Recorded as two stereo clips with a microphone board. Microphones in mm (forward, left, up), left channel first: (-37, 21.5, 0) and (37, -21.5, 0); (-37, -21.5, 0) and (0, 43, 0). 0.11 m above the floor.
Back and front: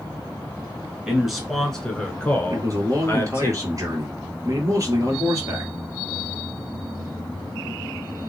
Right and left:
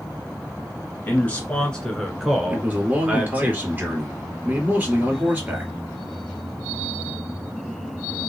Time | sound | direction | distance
1.1 | a man speaking | 105° right | 1.3 m
2.5 | a man speaking | straight ahead | 2 m